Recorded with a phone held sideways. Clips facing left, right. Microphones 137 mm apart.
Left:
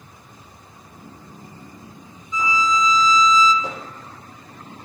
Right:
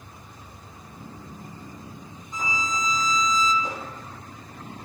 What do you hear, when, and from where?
2.3 s a violin: 50° right (ahead or behind), 1.2 m
3.6 s hammering: 85° left, 7.5 m